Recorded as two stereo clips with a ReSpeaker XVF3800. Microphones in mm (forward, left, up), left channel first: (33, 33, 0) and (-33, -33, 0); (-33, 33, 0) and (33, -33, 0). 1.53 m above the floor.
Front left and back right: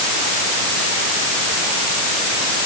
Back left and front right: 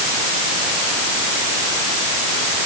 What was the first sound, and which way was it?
Only background noise.